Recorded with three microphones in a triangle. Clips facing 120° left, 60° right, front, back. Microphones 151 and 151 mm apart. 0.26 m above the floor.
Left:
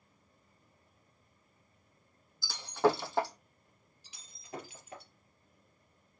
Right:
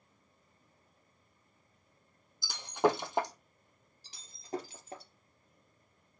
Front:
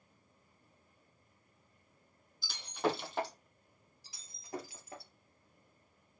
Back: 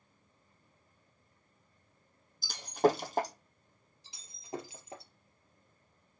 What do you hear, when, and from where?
2.4 s breaking glass: 135° right, 1.6 m
4.0 s breaking glass: 110° right, 3 m